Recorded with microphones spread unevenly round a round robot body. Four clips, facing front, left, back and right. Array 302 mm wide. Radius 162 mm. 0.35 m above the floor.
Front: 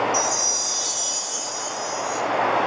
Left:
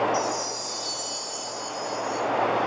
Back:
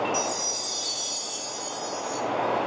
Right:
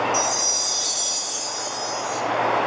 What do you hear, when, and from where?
0.1 s a chime: 110° right, 0.6 m